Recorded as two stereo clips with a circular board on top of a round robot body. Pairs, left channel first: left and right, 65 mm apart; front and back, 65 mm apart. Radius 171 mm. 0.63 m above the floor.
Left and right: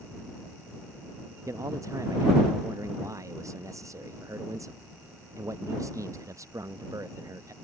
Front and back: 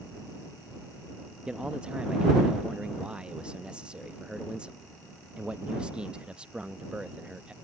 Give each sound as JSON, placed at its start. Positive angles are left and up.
{"t": 1.5, "sound": "a man speaking", "azimuth_deg": -110}